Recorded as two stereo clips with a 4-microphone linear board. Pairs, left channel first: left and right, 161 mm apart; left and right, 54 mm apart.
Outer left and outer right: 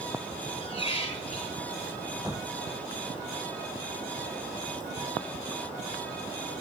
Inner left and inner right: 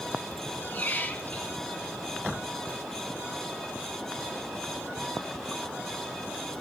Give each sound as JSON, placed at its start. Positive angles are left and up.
{"t": 0.6, "sound": "a squeak", "side_deg": 40, "distance_m": 1.3}